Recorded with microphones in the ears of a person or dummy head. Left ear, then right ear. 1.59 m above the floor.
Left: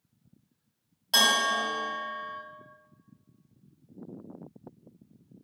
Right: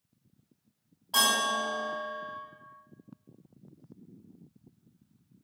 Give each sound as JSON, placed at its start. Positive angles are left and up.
{"t": 1.1, "sound": "a bell", "side_deg": 40, "distance_m": 1.9}